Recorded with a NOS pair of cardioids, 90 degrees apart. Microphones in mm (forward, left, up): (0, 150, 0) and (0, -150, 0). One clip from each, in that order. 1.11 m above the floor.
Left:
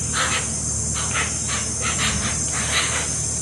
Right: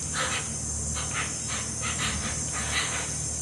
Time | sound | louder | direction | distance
0.0 | an insect | left 7 dB | 35° left | 0.8 m